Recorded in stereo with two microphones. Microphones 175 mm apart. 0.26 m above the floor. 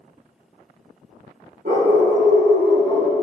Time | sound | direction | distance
1.6 | a dog barking | 55° right (ahead or behind) | 4.5 m